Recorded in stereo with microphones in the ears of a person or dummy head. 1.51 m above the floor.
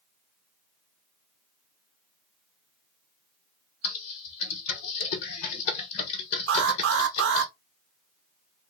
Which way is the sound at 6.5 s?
70° right (ahead or behind).